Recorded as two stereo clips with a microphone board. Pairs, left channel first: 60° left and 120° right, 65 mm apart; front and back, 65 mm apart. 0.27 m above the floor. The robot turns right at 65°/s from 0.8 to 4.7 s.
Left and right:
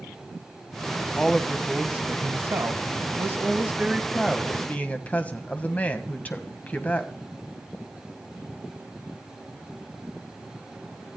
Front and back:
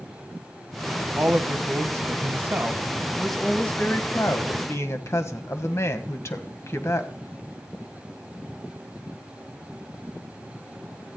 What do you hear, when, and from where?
1.2 s a woman speaking: 135° left, 1.5 m; by 7.1 s 5° left, 1.5 m